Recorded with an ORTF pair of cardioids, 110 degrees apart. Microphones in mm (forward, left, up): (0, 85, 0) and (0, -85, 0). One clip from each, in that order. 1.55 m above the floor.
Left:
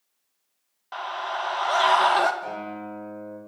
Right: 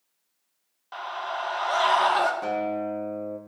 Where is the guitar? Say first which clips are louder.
Right 6 dB; 50° right, 4 m.